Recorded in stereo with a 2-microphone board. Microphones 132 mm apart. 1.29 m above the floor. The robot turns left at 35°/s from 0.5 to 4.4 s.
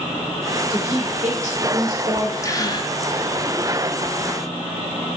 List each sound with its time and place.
0.7 s a woman speaking: 40° right, 4.5 m; by 2.3 s 95° right, 4.5 m
2.4 s a gasp: 25° left (ahead or behind), 0.7 m; by 2.9 s 35° left (ahead or behind), 0.7 m